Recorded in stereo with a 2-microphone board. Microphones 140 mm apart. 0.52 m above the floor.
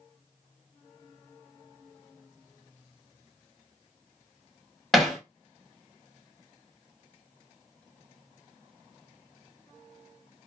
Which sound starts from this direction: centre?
Hammering, at 4.9 s.